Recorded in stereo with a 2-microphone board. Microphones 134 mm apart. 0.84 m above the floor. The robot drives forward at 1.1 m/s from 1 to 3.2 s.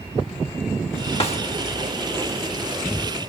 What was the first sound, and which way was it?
A snare drum, 50° left (ahead or behind).